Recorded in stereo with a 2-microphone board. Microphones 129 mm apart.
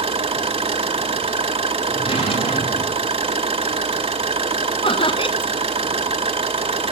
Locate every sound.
0.0 s an engine running: 55° right (ahead or behind), 1.5 m
1.9 s a drawer: 45° left (ahead or behind), 2.5 m
4.8 s laughter: 45° left (ahead or behind), 0.6 m